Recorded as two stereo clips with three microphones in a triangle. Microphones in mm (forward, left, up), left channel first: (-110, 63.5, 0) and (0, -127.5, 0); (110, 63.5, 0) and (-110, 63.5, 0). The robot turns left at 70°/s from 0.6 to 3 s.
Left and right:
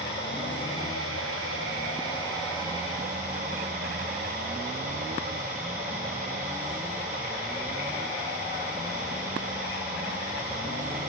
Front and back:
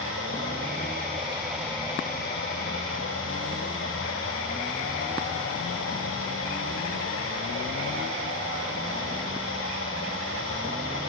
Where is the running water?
160° left, 6 m; by 11.1 s 10° right, 6 m.